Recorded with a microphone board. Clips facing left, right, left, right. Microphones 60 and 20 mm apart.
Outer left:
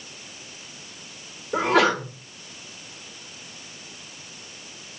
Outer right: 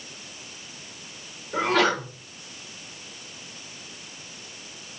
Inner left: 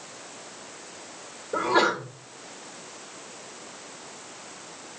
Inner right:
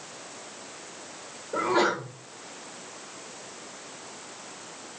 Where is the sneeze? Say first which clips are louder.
Outer left 2 dB, inner left 2 dB; 15° left (ahead or behind), 4.5 m.